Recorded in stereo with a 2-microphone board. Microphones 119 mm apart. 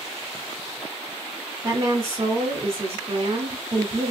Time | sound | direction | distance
1.6 | a woman speaking | 30° right (ahead or behind) | 1.2 m